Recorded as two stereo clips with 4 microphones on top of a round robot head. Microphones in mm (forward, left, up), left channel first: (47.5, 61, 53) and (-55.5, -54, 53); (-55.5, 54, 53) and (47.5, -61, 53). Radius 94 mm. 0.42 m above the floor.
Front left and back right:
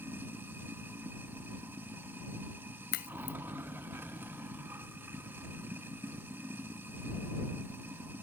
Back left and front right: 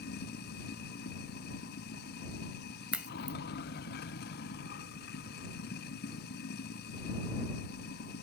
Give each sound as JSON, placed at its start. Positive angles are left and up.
{"t": 0.0, "sound": "running water", "azimuth_deg": 150}
{"t": 2.9, "sound": "a crack", "azimuth_deg": 35}